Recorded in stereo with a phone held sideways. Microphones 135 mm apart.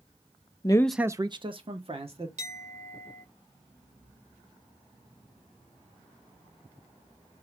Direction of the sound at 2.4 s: 55° right (ahead or behind).